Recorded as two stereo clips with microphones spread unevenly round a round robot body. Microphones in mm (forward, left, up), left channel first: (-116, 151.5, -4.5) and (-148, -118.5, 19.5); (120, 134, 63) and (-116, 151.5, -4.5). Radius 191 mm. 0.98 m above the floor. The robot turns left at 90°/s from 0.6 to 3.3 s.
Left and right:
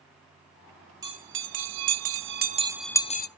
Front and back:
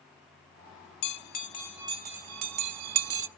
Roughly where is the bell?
Ahead.